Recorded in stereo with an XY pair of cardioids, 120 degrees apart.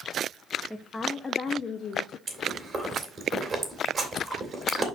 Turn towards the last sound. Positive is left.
turn(degrees=-30)